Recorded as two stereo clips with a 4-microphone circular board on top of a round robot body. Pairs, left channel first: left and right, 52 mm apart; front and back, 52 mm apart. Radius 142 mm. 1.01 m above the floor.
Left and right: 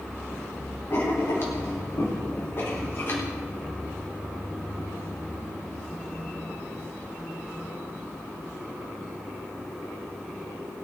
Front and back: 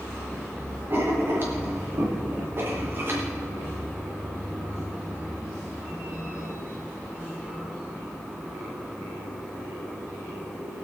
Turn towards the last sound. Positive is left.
turn(degrees=130)